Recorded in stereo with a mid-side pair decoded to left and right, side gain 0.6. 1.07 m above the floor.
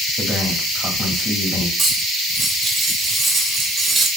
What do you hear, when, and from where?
0.2 s a man speaking: 5° left, 1.6 m
1.8 s cutlery clinking: 20° right, 0.9 m